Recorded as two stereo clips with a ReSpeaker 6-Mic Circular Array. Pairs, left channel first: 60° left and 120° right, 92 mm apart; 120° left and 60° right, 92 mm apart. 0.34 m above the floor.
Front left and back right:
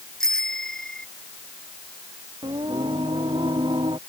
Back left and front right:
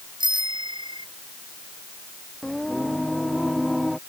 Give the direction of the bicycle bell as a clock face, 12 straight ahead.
1 o'clock.